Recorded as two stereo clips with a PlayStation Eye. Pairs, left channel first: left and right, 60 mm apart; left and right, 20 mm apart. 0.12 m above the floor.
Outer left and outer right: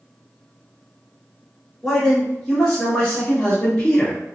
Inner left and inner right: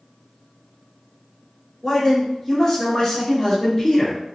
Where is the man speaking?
5° left (ahead or behind), 1.9 m; by 4.2 s 20° left (ahead or behind), 3 m.